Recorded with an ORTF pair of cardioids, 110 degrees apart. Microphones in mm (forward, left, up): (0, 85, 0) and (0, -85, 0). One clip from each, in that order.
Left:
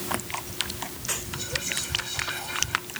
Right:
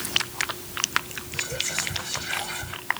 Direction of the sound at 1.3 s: 35° right.